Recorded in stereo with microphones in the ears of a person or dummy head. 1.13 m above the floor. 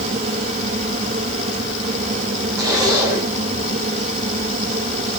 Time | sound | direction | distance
0.0 | a fan | 35° right (ahead or behind) | 1.5 m
2.6 | a zipper | 15° right (ahead or behind) | 6 m